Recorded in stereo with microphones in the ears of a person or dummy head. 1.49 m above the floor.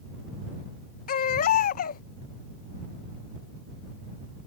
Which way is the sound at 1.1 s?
50° left (ahead or behind).